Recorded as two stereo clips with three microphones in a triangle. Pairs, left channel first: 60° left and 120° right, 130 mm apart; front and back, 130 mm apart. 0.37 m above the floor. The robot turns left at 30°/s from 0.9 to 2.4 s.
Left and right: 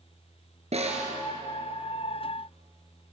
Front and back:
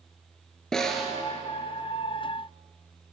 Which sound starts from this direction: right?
A snare drum, at 0.7 s.